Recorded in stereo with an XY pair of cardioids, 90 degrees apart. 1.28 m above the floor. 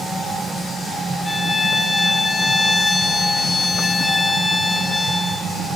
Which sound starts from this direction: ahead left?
A violin, at 1.2 s.